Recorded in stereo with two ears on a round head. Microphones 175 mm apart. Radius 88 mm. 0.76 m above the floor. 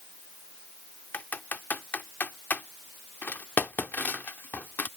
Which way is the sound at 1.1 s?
10° left (ahead or behind).